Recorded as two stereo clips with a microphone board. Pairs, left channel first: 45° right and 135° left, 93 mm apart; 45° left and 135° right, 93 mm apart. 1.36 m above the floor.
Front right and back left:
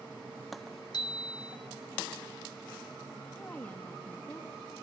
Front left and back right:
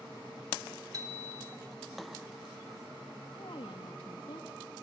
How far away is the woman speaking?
About 2.5 m.